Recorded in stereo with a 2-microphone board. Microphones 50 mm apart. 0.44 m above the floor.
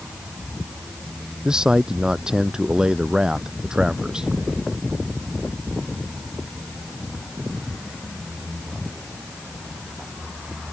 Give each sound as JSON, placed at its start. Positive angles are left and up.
{"t": 1.4, "sound": "a man speaking", "side_deg": -15}